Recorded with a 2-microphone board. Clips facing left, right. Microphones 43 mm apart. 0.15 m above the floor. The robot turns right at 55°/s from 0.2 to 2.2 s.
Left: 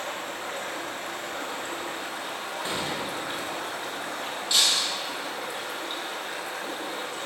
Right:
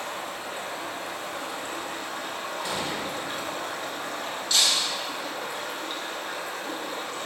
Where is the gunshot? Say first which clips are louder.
Left 1 dB; 30° left (ahead or behind), 0.7 m.